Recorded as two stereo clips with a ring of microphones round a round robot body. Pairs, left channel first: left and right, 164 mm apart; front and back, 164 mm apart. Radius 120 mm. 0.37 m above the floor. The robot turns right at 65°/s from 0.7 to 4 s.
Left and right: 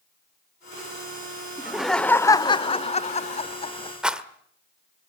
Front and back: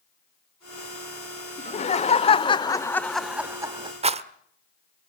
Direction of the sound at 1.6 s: 15° right.